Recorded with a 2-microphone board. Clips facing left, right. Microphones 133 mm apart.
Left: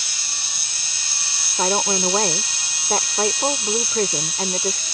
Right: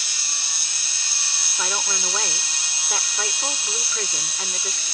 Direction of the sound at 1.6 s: 45° left (ahead or behind).